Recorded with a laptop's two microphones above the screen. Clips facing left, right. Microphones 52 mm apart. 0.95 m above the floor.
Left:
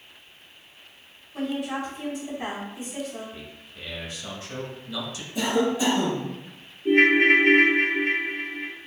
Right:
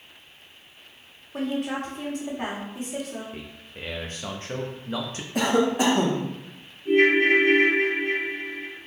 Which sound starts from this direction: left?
A ringtone, at 6.8 s.